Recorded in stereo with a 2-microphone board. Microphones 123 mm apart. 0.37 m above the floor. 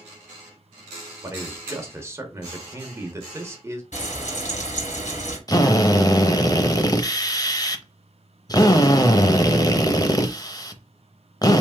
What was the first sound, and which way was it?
A man speaking, 20° right (ahead or behind).